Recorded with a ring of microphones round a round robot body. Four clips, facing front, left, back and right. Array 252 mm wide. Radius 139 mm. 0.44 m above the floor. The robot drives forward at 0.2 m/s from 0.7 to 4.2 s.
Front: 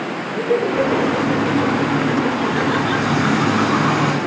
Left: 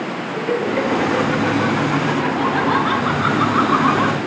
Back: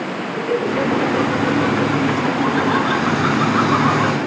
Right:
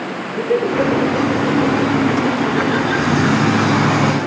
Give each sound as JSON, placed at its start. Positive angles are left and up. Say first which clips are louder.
{"t": 0.3, "sound": "laughter", "louder": "right 4 dB, front 2 dB", "azimuth_deg": 110, "distance_m": 5.5}